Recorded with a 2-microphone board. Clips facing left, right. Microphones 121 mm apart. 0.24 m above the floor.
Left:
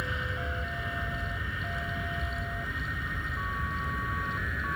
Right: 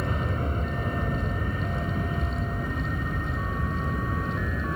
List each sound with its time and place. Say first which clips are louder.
0.0 s an aircraft: right 6 dB; 45° right (ahead or behind); by 4.8 s 35° right (ahead or behind)